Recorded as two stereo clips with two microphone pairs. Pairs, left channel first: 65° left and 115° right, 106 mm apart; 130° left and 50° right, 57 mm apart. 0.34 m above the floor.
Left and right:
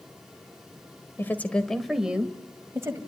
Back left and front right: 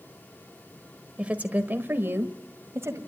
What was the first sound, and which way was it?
A woman speaking, 10° left.